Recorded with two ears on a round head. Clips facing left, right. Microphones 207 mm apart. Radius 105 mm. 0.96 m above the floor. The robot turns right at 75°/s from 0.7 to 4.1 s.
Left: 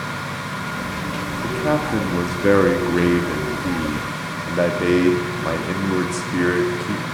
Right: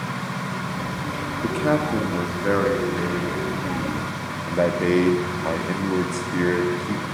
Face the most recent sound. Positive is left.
turn(degrees=170)